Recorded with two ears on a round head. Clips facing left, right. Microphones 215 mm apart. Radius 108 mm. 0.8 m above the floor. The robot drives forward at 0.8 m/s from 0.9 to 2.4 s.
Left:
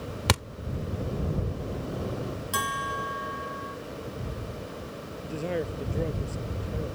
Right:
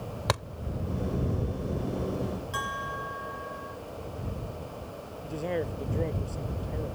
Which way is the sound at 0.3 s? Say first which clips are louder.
Left 2 dB; 40° left (ahead or behind).